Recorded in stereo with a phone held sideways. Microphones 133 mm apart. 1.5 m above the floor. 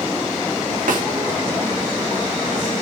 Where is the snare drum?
85° right, 2.5 m.